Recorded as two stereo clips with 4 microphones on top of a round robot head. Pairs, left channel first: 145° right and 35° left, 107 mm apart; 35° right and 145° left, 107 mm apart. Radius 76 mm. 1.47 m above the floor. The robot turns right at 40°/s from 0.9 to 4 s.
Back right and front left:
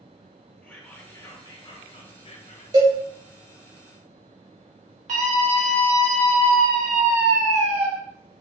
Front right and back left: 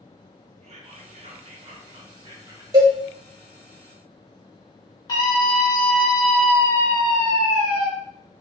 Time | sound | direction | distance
0.6 | whispering | 140° left | 0.7 m
2.7 | a cowbell | 85° left | 0.7 m
5.1 | a scream | 25° left | 1.1 m